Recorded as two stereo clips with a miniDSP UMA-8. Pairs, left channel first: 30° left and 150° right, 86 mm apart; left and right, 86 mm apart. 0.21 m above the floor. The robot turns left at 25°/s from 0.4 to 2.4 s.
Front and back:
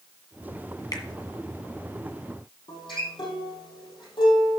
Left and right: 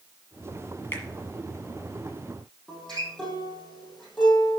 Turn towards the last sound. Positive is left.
turn(degrees=5)